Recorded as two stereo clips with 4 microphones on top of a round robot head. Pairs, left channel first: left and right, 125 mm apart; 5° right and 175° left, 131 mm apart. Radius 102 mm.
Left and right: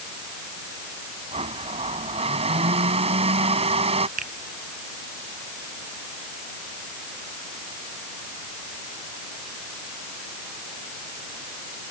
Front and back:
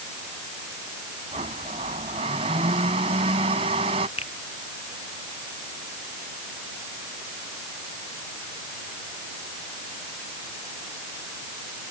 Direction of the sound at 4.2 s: 60° right.